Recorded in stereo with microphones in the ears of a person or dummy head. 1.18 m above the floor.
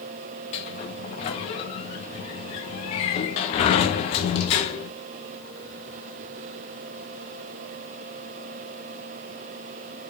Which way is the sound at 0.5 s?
25° left (ahead or behind).